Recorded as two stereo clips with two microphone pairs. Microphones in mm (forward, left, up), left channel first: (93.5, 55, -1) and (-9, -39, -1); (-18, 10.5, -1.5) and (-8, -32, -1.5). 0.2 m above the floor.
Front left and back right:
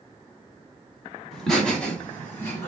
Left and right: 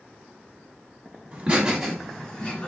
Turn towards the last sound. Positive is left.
turn(degrees=85)